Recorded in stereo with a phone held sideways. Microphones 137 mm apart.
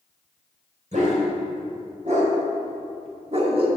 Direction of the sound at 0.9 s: 60° right (ahead or behind).